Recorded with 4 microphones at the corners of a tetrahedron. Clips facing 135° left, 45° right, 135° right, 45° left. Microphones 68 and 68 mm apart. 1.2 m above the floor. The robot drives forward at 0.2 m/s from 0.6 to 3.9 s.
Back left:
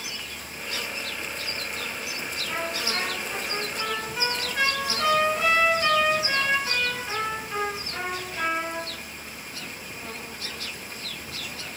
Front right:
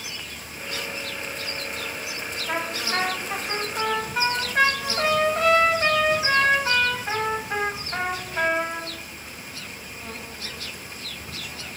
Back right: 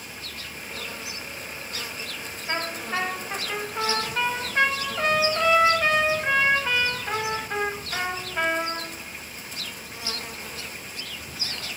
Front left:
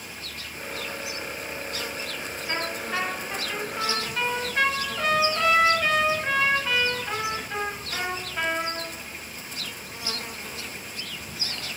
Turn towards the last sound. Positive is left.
turn(degrees=-85)